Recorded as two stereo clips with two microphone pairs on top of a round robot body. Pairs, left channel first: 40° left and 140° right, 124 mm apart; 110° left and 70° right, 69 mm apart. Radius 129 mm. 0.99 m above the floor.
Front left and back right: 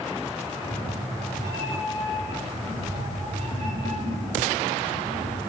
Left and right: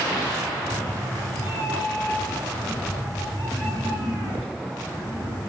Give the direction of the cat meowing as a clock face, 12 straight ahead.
7 o'clock.